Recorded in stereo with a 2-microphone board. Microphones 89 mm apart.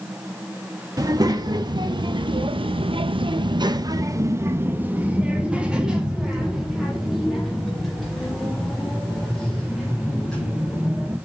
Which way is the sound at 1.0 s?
45° right (ahead or behind).